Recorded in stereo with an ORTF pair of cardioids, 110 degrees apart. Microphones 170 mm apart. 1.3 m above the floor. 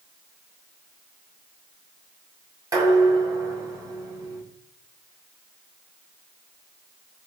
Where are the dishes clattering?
20° right, 6 m.